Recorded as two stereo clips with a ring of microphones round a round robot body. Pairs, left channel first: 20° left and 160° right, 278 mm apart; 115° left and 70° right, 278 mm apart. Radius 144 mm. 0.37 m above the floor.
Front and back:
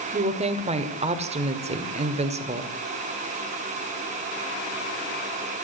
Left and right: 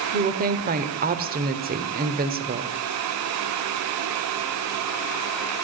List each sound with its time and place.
0.1 s a woman speaking: 105° right, 1.4 m